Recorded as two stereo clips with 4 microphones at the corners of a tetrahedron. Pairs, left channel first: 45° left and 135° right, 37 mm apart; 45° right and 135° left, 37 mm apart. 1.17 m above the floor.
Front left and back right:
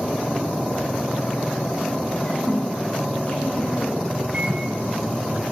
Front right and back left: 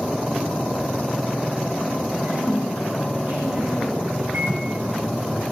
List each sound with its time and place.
2.2 s a woman speaking: 95° left, 7.5 m
4.3 s a microwave: 165° left, 8.5 m